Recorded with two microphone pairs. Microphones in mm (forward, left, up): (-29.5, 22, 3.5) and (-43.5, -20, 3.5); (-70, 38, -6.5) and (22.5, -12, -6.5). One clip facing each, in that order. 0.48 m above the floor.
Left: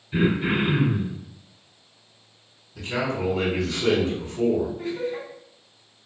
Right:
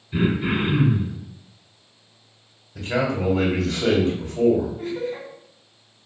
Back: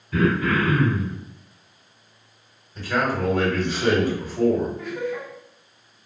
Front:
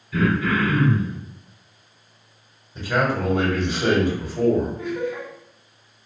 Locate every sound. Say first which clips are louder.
0.1 s throat clearing: even, even; 160° left, 1.3 m
2.8 s a man speaking: right 3 dB, front 1 dB; 100° right, 1.6 m
4.8 s laughter: right 1 dB, front 2 dB; 95° right, 2.0 m